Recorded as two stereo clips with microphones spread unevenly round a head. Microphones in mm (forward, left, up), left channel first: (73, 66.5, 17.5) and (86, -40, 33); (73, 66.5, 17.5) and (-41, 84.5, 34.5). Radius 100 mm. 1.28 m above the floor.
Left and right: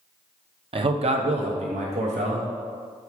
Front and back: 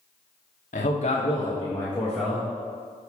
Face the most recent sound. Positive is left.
turn(degrees=-105)